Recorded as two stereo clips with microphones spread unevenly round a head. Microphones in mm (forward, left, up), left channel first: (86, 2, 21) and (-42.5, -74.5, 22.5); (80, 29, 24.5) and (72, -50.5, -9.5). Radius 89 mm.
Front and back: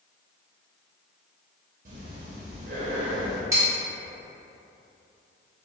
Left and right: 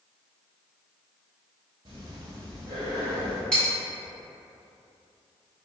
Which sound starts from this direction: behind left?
Cutlery clinking, at 3.5 s.